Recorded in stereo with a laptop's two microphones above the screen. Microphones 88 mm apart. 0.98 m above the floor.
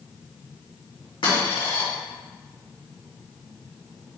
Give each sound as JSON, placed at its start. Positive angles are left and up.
{"t": 1.2, "sound": "a dropped coin", "side_deg": 70, "distance_m": 1.8}